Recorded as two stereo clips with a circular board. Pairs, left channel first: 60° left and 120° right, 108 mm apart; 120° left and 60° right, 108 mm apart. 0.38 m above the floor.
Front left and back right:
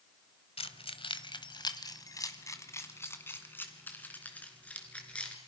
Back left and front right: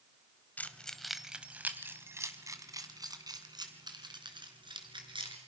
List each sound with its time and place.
0.6 s keys jangling: 45° left, 1.2 m; by 5.4 s 20° right, 4 m